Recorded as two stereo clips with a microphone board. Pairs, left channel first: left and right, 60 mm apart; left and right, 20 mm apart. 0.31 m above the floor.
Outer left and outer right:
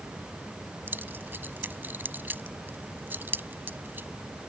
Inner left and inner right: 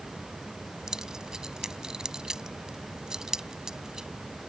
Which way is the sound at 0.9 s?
35° right (ahead or behind).